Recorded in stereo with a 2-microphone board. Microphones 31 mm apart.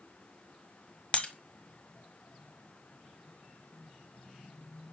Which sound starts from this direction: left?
Breaking glass, at 1.1 s.